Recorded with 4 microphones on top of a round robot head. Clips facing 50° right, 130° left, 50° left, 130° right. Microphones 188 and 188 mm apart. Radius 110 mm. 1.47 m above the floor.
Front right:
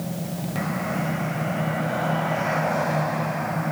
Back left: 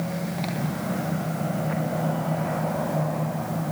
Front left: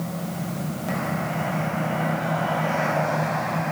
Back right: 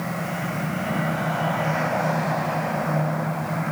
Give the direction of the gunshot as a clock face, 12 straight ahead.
I don't hear a gunshot.